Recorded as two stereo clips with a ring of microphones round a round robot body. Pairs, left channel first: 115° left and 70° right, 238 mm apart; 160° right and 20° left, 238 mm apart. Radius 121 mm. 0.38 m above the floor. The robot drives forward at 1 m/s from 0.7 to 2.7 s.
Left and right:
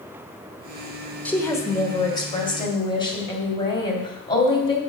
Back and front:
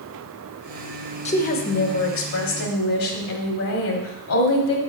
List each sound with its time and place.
1.2 s a woman speaking: 170° right, 0.9 m; by 4.8 s straight behind, 2.0 m